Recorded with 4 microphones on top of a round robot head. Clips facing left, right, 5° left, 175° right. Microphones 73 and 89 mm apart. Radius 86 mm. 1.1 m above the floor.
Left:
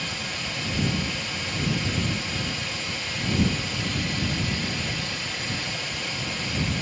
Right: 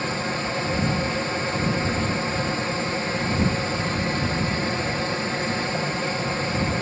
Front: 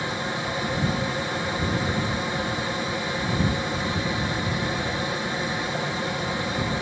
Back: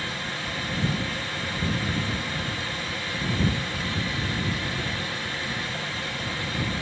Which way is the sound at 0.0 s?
55° right.